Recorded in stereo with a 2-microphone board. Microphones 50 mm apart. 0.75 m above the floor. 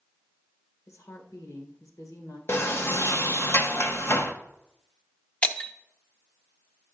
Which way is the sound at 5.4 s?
20° left (ahead or behind).